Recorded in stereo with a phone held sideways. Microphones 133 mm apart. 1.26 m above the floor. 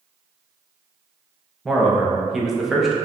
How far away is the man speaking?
About 0.6 m.